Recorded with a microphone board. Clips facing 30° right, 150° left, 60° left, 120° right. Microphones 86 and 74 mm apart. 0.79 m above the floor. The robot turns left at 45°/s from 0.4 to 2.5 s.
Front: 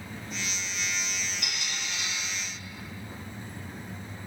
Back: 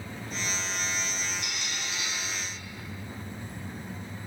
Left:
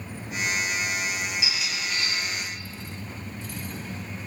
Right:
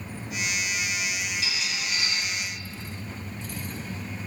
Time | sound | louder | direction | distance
1.4 | a squeak | even, left 1 dB | 15° right | 1.3 m